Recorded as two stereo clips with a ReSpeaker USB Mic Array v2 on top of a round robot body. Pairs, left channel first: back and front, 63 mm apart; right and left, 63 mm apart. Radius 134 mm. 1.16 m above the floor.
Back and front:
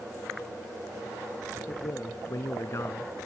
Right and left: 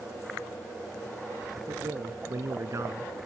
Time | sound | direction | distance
1.7 | a man speaking | 135° left | ?